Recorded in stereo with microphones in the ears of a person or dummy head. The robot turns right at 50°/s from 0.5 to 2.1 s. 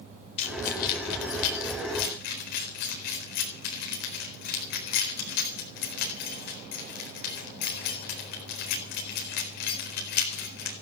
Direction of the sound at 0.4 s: 40° left (ahead or behind).